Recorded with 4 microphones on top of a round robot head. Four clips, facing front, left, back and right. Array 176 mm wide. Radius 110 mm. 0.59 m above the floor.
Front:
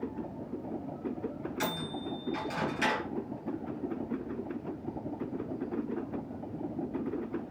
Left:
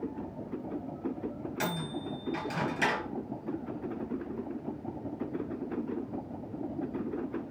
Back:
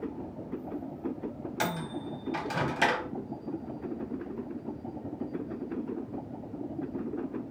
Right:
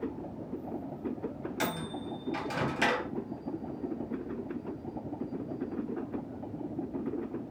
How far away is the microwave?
About 1.4 m.